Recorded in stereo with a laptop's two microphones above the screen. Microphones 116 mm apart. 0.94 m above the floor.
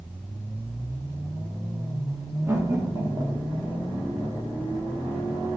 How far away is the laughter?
About 1.7 m.